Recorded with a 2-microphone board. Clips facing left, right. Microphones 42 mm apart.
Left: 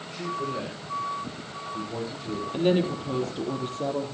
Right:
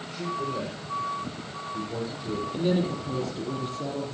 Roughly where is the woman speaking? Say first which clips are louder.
Left 3 dB; left.